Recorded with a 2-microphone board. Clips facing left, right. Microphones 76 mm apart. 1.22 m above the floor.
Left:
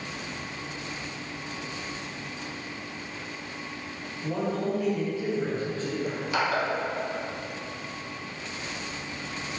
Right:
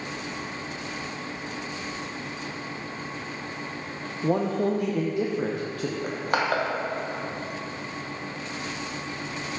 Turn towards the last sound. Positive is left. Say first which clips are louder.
# right 3 dB
turn(degrees=-50)  # may be behind; listen again after turning